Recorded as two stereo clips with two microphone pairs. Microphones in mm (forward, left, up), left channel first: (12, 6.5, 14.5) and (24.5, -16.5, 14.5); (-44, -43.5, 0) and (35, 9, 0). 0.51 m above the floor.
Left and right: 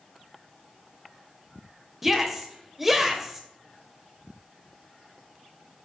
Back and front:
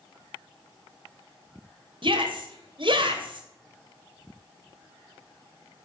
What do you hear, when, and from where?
2.0 s a shout: 20° left, 2.5 m